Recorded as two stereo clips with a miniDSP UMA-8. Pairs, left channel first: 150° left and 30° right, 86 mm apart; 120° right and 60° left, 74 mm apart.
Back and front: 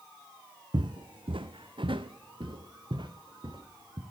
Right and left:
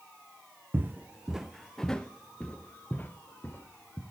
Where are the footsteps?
Straight ahead, 0.7 m; by 4.0 s 60° right, 2 m.